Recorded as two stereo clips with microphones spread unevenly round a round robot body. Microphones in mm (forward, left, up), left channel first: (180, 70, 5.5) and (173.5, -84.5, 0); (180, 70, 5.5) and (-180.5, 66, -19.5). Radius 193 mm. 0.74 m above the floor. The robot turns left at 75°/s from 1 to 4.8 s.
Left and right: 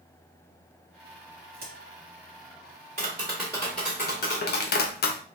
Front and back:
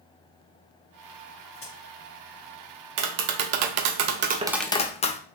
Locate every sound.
1.5 s a crack: 75° right, 2 m; by 1.7 s 90° right, 2 m
3.0 s tapping: 150° right, 0.6 m; by 5.2 s 75° left, 0.6 m